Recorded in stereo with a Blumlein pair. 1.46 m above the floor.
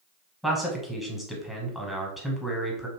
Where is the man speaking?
Straight ahead, 0.9 m.